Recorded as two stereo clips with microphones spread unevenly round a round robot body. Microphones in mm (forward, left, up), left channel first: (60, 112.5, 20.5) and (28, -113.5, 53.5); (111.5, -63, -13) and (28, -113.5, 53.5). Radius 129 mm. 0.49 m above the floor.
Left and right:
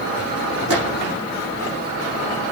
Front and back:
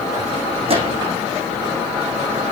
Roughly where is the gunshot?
Behind right.